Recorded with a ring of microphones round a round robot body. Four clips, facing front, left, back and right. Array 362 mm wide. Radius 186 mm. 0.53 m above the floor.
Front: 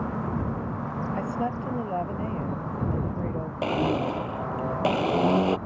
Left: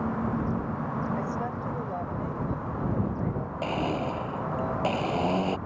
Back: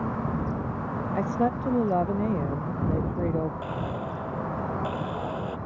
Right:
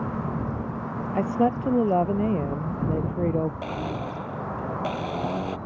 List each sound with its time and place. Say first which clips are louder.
1.1 s a woman speaking: right 8 dB, back 5 dB; 110° right
3.6 s a blender: left 2 dB, front 7 dB; 5° left